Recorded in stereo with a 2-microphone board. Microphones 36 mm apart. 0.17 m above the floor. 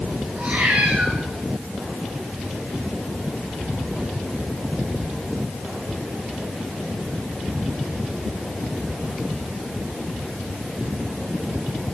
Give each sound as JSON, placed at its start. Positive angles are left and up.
{"t": 0.4, "sound": "a cat meowing", "side_deg": -60, "distance_m": 5.5}